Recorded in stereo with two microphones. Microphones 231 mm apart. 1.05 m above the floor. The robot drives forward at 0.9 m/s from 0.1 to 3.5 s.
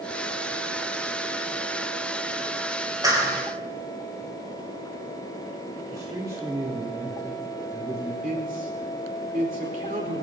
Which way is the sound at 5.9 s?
15° right (ahead or behind).